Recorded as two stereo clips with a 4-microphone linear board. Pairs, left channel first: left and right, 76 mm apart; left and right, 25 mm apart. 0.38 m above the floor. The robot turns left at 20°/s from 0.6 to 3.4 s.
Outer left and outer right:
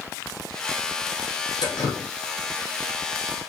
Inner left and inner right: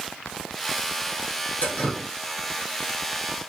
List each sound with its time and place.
1.6 s dripping: 70° left (ahead or behind), 2.5 m; by 2.1 s 65° left (ahead or behind), 2.5 m